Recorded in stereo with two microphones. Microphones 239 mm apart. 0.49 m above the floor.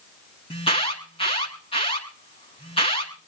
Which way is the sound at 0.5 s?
25° left (ahead or behind).